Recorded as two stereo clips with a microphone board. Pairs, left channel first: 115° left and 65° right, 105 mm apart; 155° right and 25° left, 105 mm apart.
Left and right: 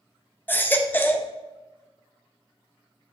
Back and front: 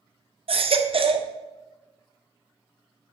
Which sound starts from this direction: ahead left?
A baby crying, at 0.5 s.